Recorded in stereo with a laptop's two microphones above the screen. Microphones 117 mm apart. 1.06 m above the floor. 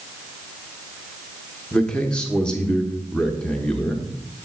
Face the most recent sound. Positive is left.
turn(degrees=5)  # may be behind; listen again after turning